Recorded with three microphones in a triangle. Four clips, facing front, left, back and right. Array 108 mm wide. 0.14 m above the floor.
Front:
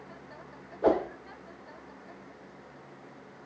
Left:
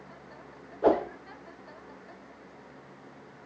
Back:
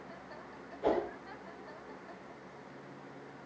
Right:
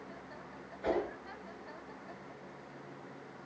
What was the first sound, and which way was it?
A whoosh, 55° left.